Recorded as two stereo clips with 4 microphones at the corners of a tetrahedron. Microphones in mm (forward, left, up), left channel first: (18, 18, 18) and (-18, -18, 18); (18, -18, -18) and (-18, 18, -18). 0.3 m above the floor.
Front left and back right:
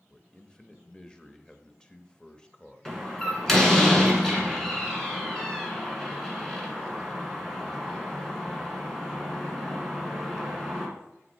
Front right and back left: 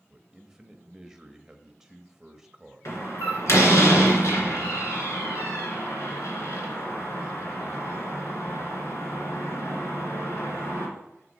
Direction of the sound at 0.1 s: 80° left.